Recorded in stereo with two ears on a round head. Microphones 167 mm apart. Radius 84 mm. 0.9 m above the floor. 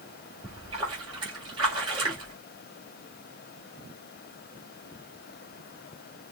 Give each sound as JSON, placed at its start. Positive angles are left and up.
{"t": 0.4, "sound": "a splash", "side_deg": -25, "distance_m": 4.0}